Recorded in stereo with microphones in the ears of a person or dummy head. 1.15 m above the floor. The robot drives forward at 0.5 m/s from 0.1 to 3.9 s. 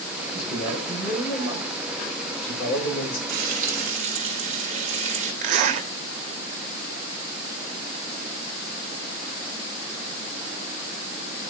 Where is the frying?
50° right (ahead or behind), 1.2 m; by 5.3 s 40° right (ahead or behind), 1.4 m.